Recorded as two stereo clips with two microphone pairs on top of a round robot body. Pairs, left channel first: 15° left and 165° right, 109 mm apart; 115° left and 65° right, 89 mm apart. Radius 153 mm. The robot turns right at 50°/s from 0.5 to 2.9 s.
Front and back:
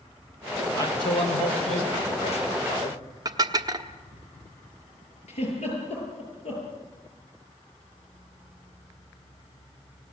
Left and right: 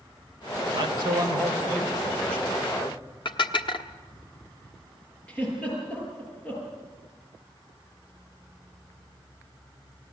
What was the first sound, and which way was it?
A man speaking, 45° right.